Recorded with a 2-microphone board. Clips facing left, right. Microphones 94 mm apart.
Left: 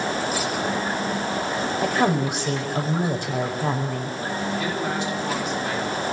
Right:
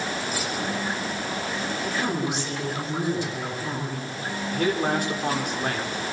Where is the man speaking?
50° right (ahead or behind), 5.5 m.